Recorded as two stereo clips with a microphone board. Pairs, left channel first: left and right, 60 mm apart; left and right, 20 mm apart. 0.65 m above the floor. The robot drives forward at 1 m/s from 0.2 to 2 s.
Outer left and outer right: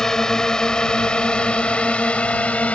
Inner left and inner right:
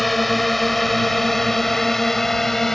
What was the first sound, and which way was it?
A drone, 10° left (ahead or behind).